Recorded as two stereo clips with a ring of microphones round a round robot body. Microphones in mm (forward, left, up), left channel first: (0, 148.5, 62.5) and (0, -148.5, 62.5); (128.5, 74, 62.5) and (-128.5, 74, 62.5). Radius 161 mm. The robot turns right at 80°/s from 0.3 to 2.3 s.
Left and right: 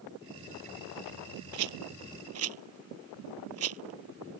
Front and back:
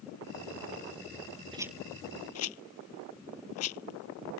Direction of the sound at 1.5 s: 105° right.